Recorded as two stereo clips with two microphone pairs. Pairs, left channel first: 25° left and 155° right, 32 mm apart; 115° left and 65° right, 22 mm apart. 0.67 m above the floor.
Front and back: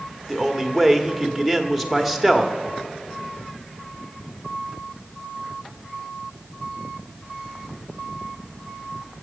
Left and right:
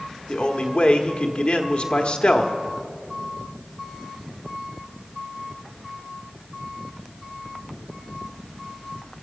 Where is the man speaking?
120° left, 1.2 m.